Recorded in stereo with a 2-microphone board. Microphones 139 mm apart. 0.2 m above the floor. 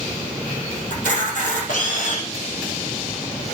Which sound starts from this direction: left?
A camera shutter, at 0.9 s.